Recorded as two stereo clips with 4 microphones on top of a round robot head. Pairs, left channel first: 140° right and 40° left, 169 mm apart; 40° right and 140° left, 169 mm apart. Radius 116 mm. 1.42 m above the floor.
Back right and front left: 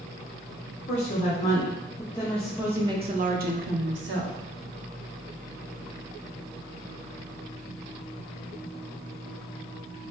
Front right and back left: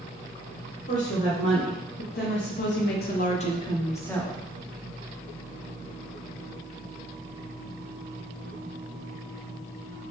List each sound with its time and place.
0.9 s a woman speaking: 85° right, 1.5 m; by 4.4 s 45° left, 1.0 m